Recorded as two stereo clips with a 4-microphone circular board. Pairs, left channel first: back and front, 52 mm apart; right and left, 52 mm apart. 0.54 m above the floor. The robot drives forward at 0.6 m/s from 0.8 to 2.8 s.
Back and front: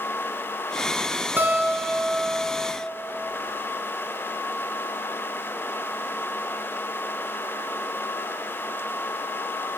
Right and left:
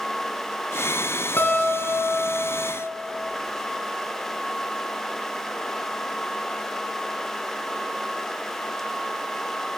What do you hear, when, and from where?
1.4 s a guitar: 45° right, 1.2 m; by 2.8 s 95° right, 0.8 m